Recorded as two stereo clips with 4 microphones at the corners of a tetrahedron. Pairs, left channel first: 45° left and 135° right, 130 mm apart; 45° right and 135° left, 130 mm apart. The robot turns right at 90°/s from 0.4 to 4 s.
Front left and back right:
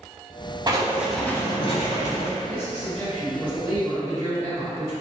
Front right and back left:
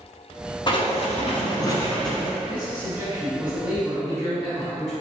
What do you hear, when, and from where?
0.7 s writing: 85° right, 0.8 m; by 2.3 s 65° left, 0.8 m
2.5 s a man speaking: 75° left, 1.4 m; by 4.9 s 145° right, 1.4 m